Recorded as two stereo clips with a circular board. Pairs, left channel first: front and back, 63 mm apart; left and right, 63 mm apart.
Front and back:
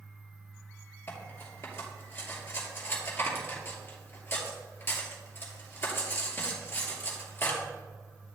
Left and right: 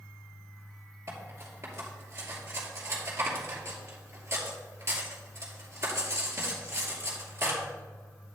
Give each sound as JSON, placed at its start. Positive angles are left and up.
{"t": 1.1, "sound": "cutlery clinking", "azimuth_deg": -50, "distance_m": 2.0}